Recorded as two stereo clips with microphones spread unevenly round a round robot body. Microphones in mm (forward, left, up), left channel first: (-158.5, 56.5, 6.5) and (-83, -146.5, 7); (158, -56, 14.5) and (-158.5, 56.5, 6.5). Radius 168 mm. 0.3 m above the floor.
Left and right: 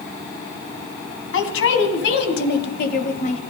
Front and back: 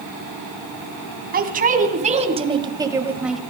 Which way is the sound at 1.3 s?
100° left.